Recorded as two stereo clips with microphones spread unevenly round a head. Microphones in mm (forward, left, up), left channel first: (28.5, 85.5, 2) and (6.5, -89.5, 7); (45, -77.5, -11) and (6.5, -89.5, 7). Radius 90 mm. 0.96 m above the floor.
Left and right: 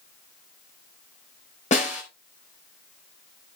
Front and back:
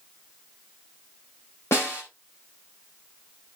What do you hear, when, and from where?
1.7 s a snare drum: 30° left, 4 m